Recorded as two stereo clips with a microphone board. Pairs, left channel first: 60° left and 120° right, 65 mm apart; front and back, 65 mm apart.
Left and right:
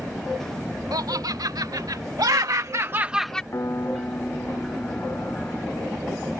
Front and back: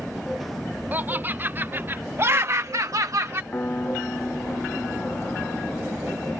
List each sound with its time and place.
0.9 s laughter: 120° right; by 3.4 s 130° left
3.5 s a piano: 45° left